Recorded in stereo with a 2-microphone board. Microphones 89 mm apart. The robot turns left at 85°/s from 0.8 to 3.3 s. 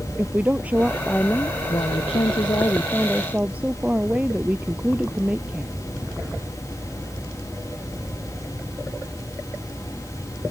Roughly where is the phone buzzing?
No phone buzzing in this recording.